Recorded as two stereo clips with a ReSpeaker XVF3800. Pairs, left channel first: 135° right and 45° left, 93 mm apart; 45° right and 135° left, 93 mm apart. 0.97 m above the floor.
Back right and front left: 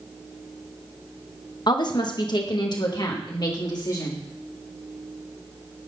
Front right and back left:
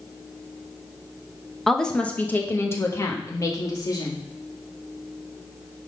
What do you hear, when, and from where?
1.7 s a woman speaking: 135° right, 1.0 m; by 4.2 s 90° right, 2 m